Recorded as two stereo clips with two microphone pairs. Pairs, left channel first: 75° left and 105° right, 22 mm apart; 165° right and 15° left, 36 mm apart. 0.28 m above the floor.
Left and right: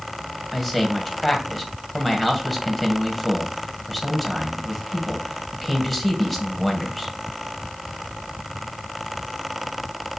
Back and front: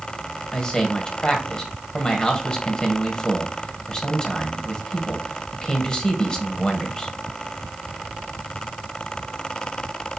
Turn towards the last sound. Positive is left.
turn(degrees=150)